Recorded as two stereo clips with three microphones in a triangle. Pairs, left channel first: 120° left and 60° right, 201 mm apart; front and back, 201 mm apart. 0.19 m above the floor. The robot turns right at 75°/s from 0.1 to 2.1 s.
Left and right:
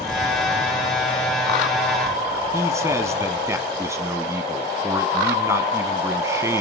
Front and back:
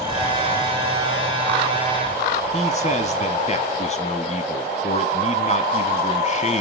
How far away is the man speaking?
About 1.3 m.